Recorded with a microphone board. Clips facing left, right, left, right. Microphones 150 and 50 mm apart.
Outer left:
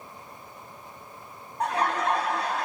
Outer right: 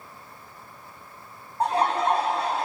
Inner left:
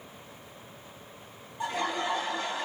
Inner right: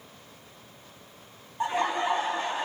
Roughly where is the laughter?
Right.